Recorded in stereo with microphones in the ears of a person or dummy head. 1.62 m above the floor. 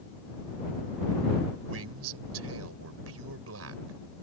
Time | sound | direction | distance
1.7 | a man speaking | 85° right | ?